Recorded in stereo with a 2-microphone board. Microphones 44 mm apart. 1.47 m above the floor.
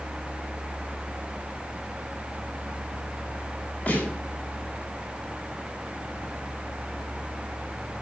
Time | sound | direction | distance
3.9 | a snare drum | 35° left (ahead or behind) | 9 m